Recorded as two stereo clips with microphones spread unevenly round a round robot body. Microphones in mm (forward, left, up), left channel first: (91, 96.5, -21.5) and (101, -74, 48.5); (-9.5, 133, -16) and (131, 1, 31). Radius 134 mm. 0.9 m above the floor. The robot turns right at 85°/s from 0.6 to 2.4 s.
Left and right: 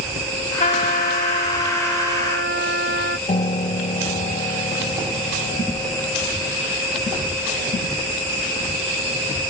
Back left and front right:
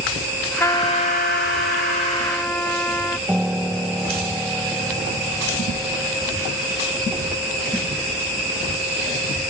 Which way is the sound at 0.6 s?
65° left.